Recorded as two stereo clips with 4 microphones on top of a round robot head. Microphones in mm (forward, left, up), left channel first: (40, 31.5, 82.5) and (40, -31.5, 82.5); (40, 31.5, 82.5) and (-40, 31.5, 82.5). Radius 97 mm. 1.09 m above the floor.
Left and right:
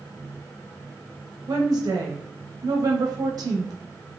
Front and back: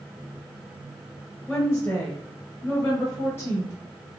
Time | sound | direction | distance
1.5 | a woman speaking | 65° right | 0.8 m